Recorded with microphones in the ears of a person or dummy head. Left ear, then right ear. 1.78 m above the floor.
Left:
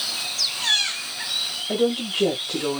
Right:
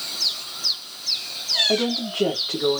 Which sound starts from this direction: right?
A woman speaking, at 1.7 s.